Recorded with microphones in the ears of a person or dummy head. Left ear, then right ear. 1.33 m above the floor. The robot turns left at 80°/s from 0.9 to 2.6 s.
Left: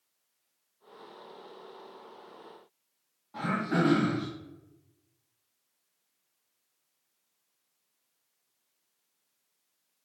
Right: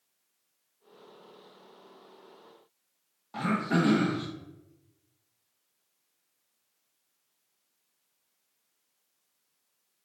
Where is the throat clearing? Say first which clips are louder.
Right 1 dB; 40° right (ahead or behind), 0.7 m.